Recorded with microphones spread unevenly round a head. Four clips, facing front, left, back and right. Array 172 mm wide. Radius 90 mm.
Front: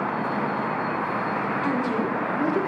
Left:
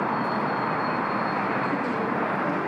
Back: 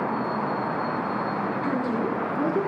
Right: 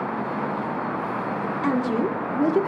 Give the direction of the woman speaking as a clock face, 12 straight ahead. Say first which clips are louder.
Right 3 dB, front 1 dB; 3 o'clock.